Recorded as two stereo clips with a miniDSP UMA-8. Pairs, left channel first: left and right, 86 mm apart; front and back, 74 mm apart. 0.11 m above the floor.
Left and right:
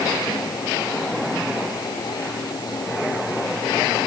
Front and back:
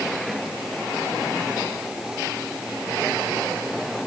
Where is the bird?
I don't hear a bird.